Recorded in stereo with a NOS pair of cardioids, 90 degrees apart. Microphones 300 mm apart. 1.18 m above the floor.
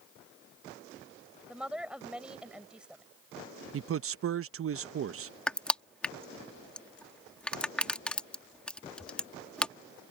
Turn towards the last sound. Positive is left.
turn(degrees=5)